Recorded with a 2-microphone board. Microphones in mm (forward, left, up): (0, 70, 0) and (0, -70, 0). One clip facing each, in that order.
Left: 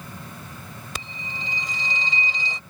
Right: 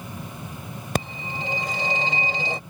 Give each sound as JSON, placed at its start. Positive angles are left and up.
{"t": 0.9, "sound": "a phone ringing", "side_deg": -50}